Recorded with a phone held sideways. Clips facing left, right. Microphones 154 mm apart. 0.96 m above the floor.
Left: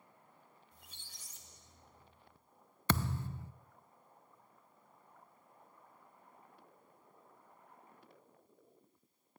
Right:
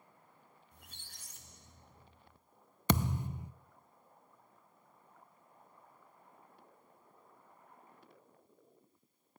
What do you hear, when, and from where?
0.7 s a squeak: 60° right (ahead or behind), 1.7 m
2.9 s a thud: 15° right (ahead or behind), 0.6 m